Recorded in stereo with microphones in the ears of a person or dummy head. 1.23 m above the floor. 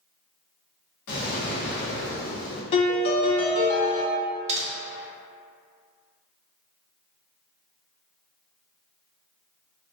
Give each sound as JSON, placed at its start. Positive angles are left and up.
{"t": 1.1, "sound": "an explosion", "side_deg": 55, "distance_m": 0.7}
{"t": 2.7, "sound": "a piano", "side_deg": 35, "distance_m": 0.5}
{"t": 4.5, "sound": "typing on a keyboard", "side_deg": -35, "distance_m": 0.6}